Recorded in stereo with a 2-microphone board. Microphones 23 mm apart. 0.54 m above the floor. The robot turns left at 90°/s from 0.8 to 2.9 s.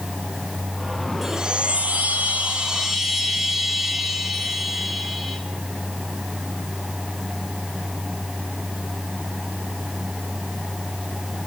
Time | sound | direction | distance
1.2 | a chime | 10° right | 6 m